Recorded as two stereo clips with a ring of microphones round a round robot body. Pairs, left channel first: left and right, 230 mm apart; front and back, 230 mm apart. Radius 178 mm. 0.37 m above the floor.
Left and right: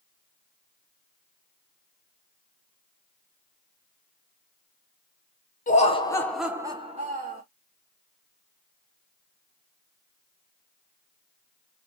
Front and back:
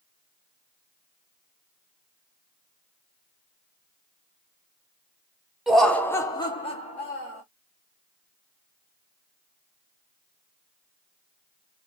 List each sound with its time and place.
5.7 s laughter: 90° left, 0.9 m; by 7.4 s 50° right, 1.2 m